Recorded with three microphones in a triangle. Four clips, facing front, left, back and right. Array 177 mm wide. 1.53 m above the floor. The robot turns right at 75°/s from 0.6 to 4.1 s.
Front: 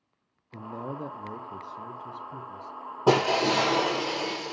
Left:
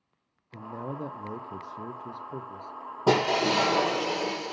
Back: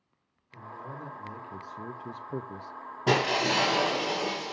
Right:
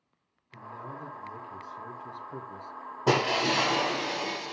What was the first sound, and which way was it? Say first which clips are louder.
A man speaking: left 5 dB, front 6 dB; 25° left.